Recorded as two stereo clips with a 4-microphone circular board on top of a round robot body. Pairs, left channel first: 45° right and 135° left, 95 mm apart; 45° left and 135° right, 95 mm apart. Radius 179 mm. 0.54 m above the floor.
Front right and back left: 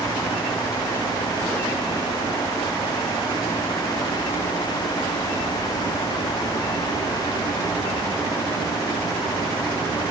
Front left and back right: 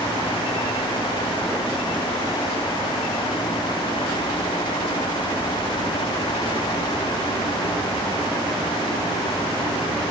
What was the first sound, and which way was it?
Only background noise.